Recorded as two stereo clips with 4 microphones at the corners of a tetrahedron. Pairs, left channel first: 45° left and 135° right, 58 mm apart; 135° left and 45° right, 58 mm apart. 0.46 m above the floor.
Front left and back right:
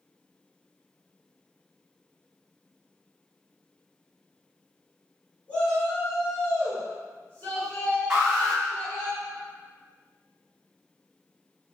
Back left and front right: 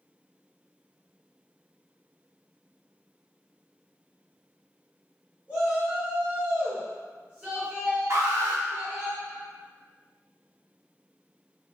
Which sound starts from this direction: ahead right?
An alarm, at 8.1 s.